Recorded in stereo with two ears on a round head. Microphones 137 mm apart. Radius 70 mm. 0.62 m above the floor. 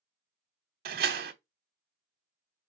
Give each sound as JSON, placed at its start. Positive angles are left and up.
{"t": 0.8, "sound": "a door slam", "side_deg": -70, "distance_m": 0.9}